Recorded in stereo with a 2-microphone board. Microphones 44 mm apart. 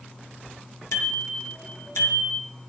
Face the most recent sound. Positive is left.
turn(degrees=70)  # may be behind; listen again after turning